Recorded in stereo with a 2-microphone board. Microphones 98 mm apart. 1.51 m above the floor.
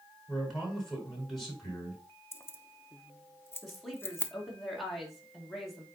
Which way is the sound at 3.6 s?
Centre (ahead or behind).